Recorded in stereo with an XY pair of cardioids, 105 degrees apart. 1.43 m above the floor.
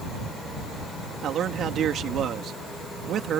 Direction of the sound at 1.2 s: 65° right.